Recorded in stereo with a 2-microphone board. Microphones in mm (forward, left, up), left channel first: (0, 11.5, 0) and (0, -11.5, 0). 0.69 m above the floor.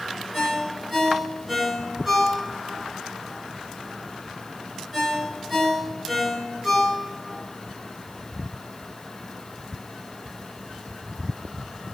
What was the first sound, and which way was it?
A ringtone, 10° right (ahead or behind).